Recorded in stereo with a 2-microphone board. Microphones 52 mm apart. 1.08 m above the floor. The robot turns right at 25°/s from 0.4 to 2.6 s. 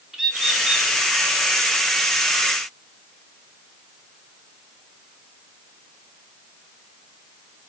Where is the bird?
10° right (ahead or behind), 0.6 m; by 0.9 s 20° right (ahead or behind), 0.6 m.